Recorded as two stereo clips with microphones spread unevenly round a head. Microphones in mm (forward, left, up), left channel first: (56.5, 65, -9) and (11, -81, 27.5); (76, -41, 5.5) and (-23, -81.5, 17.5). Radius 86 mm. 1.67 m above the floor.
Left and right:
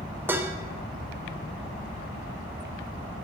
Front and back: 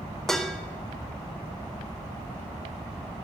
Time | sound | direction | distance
0.3 | dishes clattering | 75° right | 0.7 m